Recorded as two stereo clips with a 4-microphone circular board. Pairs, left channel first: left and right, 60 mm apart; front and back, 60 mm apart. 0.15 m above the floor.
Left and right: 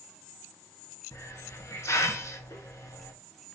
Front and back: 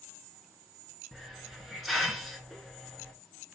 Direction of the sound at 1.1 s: 90° left.